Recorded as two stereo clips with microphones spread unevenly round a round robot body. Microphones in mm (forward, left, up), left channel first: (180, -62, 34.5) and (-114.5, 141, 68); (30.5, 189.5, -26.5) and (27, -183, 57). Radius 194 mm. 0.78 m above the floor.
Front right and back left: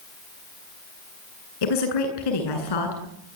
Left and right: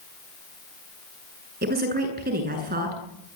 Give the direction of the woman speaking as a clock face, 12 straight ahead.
1 o'clock.